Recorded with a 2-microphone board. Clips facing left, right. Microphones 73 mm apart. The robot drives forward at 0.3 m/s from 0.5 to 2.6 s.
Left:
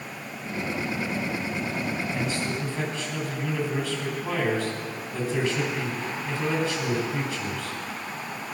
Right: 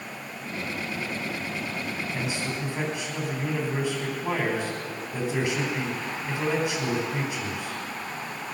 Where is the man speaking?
20° right (ahead or behind), 4 m.